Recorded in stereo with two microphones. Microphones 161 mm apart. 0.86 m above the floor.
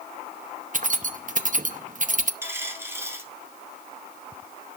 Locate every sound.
0.7 s keys jangling: 55° right (ahead or behind), 0.8 m
2.4 s a dropped coin: 15° right (ahead or behind), 1.9 m